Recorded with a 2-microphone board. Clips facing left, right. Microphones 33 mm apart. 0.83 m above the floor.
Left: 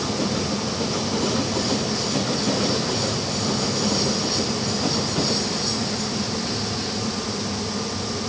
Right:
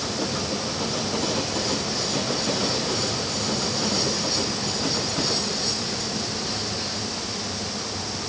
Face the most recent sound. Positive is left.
No sound to turn to.